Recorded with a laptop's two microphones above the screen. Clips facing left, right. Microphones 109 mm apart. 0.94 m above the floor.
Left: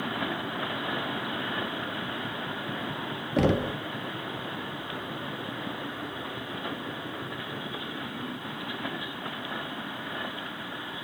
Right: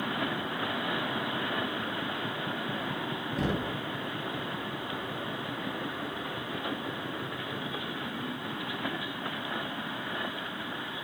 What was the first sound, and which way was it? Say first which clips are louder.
Knocking: left 8 dB; 70° left (ahead or behind).